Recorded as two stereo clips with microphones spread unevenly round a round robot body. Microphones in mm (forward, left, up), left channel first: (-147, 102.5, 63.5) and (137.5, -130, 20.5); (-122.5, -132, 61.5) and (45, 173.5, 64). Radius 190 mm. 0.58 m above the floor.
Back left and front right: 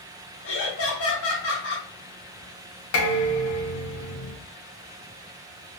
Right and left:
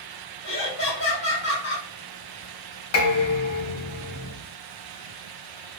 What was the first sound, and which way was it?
Laughter, 165° right.